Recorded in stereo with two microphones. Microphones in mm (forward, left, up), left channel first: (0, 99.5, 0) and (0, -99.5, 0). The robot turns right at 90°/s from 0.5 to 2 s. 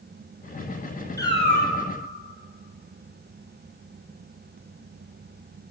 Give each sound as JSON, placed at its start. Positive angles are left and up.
{"t": 1.2, "sound": "a cat meowing", "azimuth_deg": 15, "distance_m": 1.0}